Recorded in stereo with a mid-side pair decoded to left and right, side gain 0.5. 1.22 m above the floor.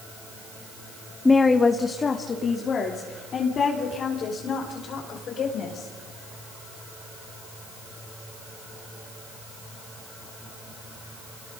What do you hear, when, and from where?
1.2 s a woman speaking: 15° left, 1.2 m; by 5.9 s 55° left, 5.5 m